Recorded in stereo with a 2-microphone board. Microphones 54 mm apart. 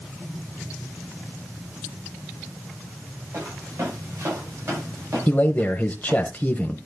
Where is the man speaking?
30° left (ahead or behind), 1.1 m.